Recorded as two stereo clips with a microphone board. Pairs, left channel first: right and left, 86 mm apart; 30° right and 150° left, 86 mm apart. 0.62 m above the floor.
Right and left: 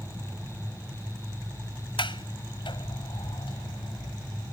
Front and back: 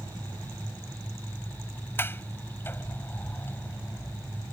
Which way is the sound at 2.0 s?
95° right.